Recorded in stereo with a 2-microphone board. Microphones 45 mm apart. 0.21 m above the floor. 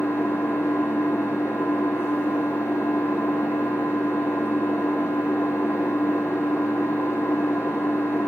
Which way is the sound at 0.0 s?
85° left.